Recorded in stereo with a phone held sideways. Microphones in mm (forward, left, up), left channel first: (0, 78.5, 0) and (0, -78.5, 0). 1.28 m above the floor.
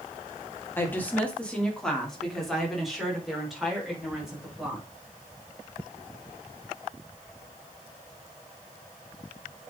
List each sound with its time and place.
0.8 s a woman speaking: 15° left (ahead or behind), 2 m; by 4.9 s 5° right (ahead or behind), 5.5 m